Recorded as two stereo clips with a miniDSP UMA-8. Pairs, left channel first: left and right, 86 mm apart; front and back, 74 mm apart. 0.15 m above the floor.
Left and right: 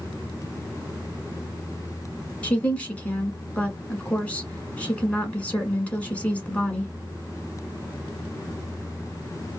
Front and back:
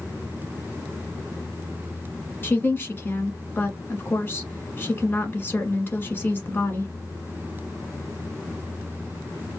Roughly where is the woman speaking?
Ahead left.